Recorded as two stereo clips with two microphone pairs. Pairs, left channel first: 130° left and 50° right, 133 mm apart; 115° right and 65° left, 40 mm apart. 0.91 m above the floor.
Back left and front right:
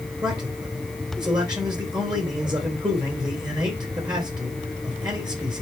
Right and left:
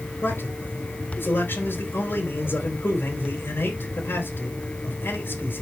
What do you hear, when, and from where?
0.2 s a man speaking: 105° right, 3.5 m